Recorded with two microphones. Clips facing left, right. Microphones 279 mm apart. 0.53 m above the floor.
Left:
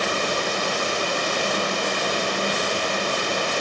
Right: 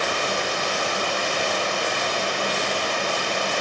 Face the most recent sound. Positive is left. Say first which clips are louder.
# left 1 dB
turn(degrees=45)  # may be behind; listen again after turning